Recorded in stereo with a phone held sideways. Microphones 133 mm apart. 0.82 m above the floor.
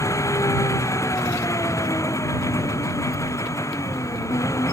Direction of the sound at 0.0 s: 25° left (ahead or behind).